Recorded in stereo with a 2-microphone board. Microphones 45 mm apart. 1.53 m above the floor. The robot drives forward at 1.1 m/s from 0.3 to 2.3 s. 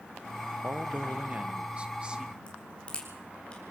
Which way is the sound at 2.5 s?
25° left (ahead or behind).